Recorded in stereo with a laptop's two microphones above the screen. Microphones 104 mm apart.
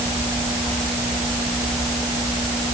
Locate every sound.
Only background noise.